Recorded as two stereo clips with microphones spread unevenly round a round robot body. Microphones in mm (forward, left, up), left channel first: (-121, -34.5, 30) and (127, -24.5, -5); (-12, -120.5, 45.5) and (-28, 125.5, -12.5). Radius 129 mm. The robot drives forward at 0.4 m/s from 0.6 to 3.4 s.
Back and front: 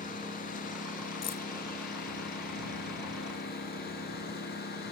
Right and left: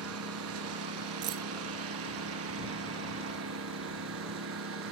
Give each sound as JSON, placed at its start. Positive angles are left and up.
{"t": 0.0, "sound": "a lawn mower", "azimuth_deg": 120}
{"t": 1.2, "sound": "keys jangling", "azimuth_deg": 110}